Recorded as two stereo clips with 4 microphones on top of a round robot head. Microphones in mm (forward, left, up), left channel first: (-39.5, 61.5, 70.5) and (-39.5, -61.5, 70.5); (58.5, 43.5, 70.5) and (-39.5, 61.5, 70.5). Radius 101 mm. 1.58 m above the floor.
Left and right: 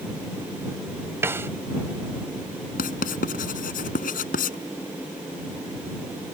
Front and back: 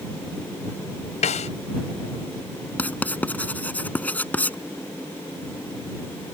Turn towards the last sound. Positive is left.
turn(degrees=65)